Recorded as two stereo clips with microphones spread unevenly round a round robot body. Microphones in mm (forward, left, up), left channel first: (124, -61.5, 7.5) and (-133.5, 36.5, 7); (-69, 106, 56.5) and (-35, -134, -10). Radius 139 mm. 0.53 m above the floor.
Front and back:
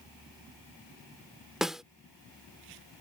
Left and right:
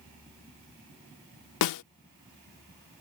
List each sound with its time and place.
1.6 s a snare drum: 70° left